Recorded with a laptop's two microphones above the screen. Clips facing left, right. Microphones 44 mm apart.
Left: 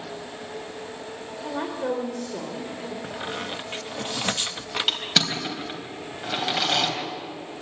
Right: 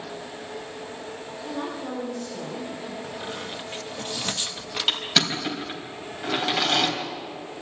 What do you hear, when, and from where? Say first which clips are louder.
1.4 s a woman speaking: left 3 dB; 65° left (ahead or behind), 4 m
3.0 s a squeak: left 2 dB; 25° left (ahead or behind), 1.1 m
4.9 s crushing: right 2 dB; centre (ahead or behind), 3.5 m